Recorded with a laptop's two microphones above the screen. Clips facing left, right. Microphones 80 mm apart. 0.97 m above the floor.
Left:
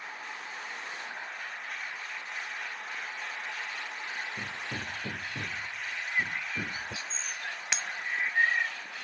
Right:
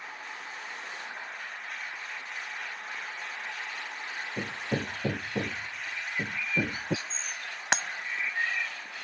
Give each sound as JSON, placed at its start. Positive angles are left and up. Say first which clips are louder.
{"t": 4.4, "sound": "hammering", "louder": "right 5 dB", "side_deg": -70}
{"t": 6.0, "sound": "a bird", "louder": "left 2 dB", "side_deg": 45}
{"t": 7.7, "sound": "breaking glass", "louder": "right 8 dB", "side_deg": -55}